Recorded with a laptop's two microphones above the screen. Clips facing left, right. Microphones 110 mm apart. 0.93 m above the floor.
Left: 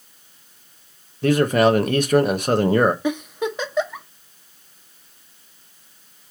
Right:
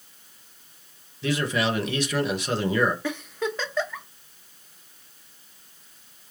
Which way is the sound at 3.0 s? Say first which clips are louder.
Left 5 dB; 15° left (ahead or behind).